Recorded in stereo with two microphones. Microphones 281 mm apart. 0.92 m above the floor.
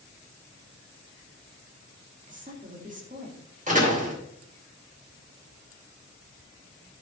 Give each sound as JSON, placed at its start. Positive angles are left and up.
{"t": 2.3, "sound": "a woman speaking", "side_deg": -25, "distance_m": 2.5}
{"t": 3.7, "sound": "a door slam", "side_deg": -25, "distance_m": 2.5}